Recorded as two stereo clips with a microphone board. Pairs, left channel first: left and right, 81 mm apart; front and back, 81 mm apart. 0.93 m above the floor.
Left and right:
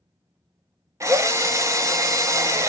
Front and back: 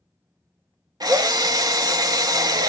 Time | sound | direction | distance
1.0 | a drill | 140° right | 0.7 m